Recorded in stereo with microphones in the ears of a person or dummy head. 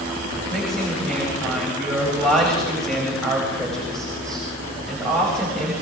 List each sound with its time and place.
0.5 s a woman speaking: 5° left (ahead or behind), 8.5 m